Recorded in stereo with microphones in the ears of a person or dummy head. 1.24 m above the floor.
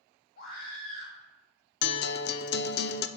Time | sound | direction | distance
0.4 | a scream | 50° left (ahead or behind) | 2 m
1.8 | a guitar | 50° left (ahead or behind) | 0.6 m